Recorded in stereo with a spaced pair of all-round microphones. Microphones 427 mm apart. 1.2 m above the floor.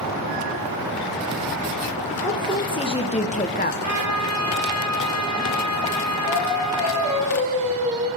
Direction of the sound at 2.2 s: 10° left (ahead or behind).